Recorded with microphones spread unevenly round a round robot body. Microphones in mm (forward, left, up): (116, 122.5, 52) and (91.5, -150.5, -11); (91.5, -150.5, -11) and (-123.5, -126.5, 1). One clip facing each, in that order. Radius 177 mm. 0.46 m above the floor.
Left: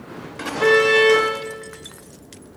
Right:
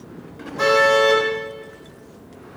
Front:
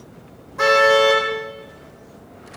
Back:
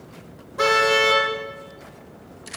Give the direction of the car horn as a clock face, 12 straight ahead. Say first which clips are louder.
Left 2 dB, front 5 dB; 5 o'clock.